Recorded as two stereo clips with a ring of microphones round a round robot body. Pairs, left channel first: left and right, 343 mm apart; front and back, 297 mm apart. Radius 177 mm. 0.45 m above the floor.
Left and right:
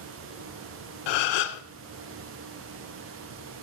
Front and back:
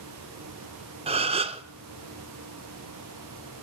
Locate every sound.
1.1 s a gasp: 105° left, 0.6 m